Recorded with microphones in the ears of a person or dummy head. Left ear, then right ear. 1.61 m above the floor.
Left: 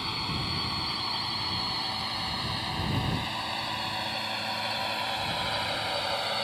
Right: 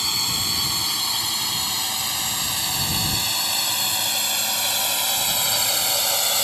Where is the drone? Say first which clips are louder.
Right 9 dB; 80° right; by 6.5 s 85° right.